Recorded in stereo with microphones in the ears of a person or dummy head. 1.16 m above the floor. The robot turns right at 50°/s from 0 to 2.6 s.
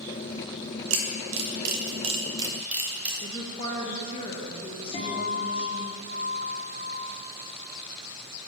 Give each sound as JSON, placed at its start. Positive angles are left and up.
{"t": 0.9, "sound": "a camera shutter", "side_deg": -75, "distance_m": 1.6}
{"t": 3.2, "sound": "a woman speaking", "side_deg": 30, "distance_m": 1.3}
{"t": 4.9, "sound": "a guitar", "side_deg": 35, "distance_m": 1.6}